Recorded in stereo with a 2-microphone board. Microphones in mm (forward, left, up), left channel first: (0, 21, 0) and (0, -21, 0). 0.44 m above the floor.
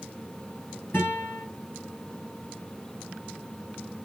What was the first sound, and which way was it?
A guitar, 60° left (ahead or behind).